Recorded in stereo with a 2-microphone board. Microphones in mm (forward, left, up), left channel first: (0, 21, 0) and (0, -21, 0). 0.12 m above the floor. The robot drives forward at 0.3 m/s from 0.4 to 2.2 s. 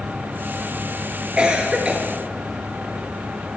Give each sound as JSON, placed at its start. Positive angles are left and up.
{"t": 1.4, "sound": "a cough", "side_deg": -25, "distance_m": 2.0}